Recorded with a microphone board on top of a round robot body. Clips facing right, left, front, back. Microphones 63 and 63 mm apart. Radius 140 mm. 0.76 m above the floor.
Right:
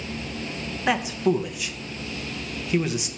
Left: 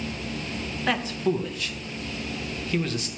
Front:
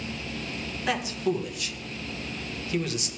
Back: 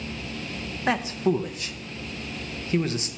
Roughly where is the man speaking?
Behind.